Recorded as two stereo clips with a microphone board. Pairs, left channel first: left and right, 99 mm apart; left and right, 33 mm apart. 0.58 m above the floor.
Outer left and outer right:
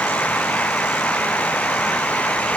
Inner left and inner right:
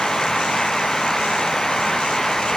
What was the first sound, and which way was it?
Only background noise.